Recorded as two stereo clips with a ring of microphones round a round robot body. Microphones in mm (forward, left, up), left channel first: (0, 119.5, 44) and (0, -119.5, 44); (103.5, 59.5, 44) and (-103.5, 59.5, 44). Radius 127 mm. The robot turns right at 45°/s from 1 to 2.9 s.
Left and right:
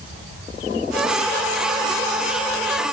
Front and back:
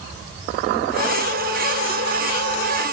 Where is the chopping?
No chopping in this recording.